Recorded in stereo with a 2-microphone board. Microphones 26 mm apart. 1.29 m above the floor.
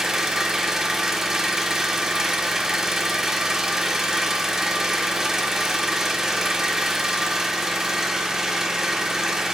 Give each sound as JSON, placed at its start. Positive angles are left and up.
{"t": 0.0, "sound": "an engine running", "side_deg": -20, "distance_m": 0.9}